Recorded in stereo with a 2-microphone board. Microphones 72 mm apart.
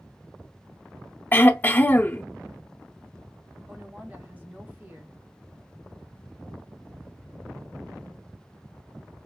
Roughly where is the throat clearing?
Left.